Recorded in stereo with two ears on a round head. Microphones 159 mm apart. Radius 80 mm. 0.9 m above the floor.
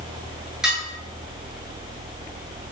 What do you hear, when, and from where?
0.6 s dishes clattering: 5° right (ahead or behind), 8.5 m